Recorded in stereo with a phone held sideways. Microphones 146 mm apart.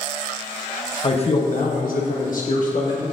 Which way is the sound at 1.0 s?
40° left (ahead or behind).